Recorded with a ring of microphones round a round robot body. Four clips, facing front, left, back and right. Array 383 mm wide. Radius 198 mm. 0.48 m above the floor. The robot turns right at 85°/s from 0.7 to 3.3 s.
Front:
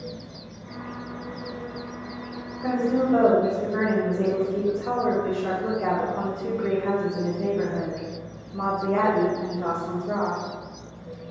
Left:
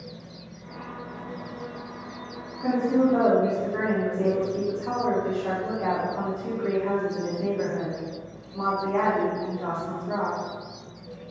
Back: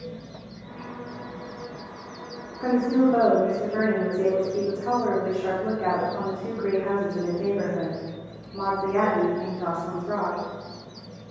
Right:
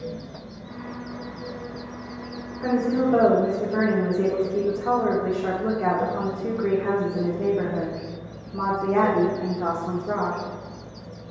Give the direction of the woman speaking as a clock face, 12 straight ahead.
5 o'clock.